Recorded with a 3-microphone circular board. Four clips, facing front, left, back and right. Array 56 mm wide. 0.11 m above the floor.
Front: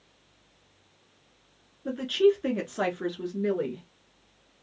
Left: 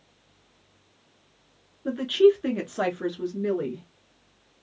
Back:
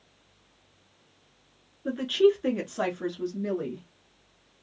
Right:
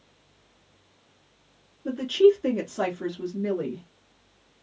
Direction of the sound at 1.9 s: 110° left.